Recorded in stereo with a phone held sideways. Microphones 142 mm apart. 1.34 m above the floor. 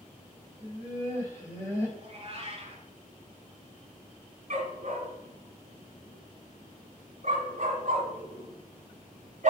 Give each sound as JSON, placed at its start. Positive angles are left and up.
{"t": 0.6, "sound": "laughter", "side_deg": 25, "distance_m": 5.0}
{"t": 2.0, "sound": "a cat meowing", "side_deg": -45, "distance_m": 1.8}
{"t": 4.5, "sound": "a dog barking", "side_deg": -60, "distance_m": 2.5}